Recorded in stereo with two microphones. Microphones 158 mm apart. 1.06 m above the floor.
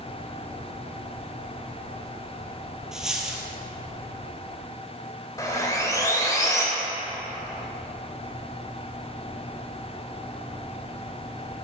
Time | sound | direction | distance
2.9 | a dropped coin | 5° right (ahead or behind) | 2 m
5.4 | sawing | 20° left (ahead or behind) | 2.5 m